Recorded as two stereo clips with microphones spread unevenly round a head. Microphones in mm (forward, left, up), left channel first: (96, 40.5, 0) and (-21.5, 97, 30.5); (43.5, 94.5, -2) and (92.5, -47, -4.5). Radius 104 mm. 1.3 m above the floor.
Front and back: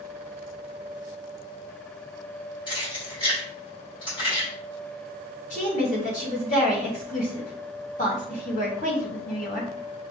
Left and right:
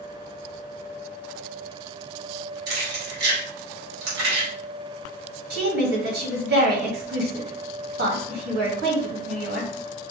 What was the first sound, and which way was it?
Keys jangling, 95° right.